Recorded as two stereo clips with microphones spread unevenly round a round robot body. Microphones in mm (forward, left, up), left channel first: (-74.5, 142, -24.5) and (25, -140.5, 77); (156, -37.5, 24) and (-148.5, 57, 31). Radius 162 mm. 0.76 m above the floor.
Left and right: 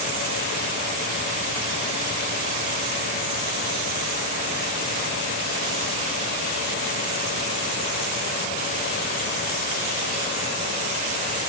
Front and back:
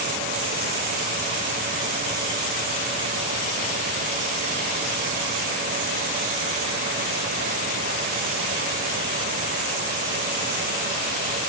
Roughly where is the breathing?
I don't hear breathing.